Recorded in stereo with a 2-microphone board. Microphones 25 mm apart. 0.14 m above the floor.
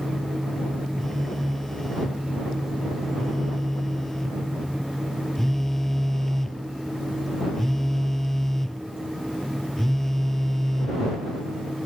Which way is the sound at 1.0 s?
15° left (ahead or behind).